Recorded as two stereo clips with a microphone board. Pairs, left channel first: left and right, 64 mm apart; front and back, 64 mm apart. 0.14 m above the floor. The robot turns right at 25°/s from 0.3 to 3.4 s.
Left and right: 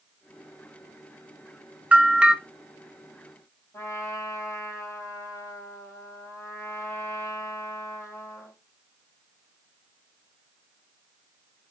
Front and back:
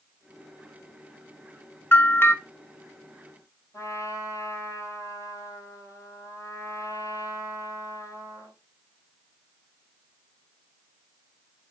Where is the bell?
35° right, 0.6 m; by 2.3 s 25° right, 0.6 m.